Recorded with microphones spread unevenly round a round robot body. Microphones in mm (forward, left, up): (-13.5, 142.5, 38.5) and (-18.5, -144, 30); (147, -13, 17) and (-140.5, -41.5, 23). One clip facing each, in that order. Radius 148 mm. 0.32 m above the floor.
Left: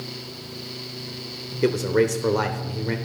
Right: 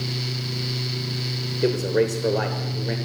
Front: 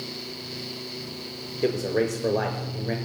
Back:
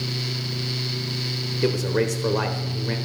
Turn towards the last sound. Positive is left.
turn(degrees=145)